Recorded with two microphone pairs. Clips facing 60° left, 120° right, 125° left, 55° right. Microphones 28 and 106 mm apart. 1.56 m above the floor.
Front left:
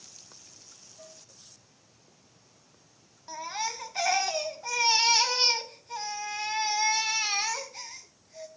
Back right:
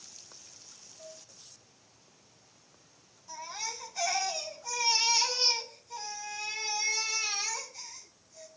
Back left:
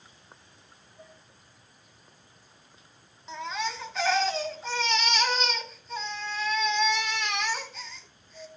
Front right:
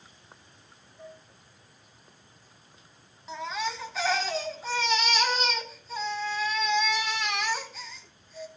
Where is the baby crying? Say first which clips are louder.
Front left 6 dB, even; 30° left, 2.5 m.